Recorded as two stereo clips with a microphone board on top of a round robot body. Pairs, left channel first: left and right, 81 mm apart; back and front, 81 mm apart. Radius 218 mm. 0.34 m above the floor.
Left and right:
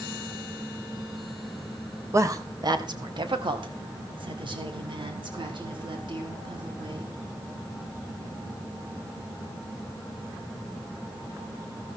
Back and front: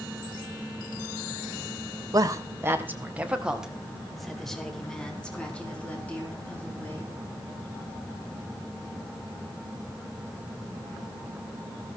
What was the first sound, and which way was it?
A woman speaking, 40° right.